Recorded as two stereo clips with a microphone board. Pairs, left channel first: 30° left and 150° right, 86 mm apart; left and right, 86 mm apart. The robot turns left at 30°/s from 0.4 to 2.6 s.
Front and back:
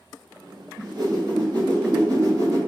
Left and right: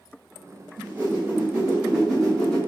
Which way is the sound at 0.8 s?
140° right.